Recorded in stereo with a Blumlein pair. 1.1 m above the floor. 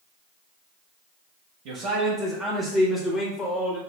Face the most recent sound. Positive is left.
turn(degrees=25)